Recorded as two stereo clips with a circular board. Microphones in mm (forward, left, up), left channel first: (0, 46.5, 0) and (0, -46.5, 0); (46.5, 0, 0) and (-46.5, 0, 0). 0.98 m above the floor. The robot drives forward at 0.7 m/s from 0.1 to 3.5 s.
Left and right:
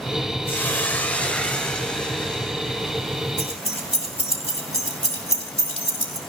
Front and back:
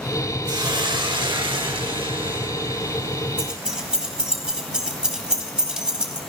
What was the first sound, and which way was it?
A hiss, 150° left.